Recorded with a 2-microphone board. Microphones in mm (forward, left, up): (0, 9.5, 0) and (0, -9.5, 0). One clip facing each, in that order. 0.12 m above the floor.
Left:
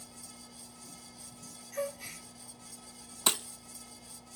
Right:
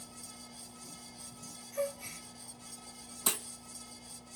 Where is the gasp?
25° left (ahead or behind), 1.9 m.